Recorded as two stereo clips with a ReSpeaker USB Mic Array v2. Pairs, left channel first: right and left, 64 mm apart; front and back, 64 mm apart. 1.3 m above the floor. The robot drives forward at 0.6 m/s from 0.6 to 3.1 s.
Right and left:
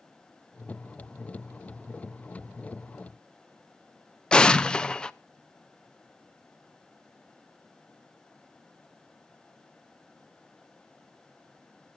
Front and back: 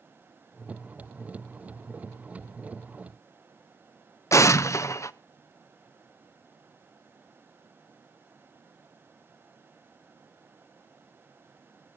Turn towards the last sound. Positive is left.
turn(degrees=-15)